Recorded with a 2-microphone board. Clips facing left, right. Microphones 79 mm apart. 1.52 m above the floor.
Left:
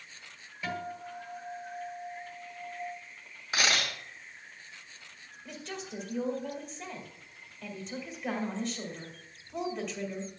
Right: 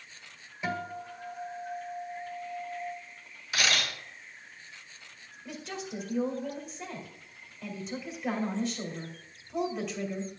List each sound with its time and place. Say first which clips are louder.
0.6 s a guitar: right 2 dB; 20° right (ahead or behind), 1.9 m
3.5 s a camera shutter: even; 40° left (ahead or behind), 3.5 m
5.5 s a woman speaking: right 2 dB; 5° right (ahead or behind), 2 m